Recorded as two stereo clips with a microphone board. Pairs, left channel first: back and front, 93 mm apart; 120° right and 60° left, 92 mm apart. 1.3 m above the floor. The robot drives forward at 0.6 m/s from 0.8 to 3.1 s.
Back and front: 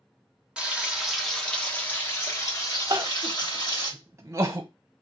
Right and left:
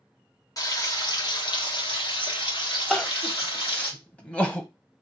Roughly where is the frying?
Right.